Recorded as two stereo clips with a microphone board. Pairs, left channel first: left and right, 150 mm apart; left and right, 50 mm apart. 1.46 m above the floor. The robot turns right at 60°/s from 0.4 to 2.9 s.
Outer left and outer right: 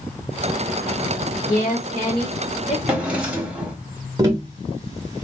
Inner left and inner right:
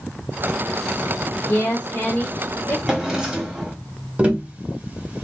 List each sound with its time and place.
1.5 s a woman speaking: 60° left, 1.1 m; by 2.8 s 140° left, 1.1 m
2.9 s a drawer: 5° right (ahead or behind), 1.0 m; by 3.8 s 10° right (ahead or behind), 1.0 m
4.2 s tapping: 25° right (ahead or behind), 1.0 m